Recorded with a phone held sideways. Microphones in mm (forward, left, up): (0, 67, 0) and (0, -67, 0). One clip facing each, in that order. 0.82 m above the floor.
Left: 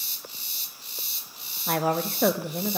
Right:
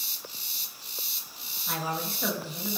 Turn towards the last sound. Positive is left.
turn(degrees=60)  # may be behind; listen again after turning